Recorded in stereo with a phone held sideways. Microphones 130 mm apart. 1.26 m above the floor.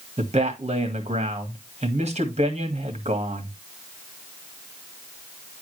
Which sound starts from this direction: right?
A man speaking, at 0.2 s.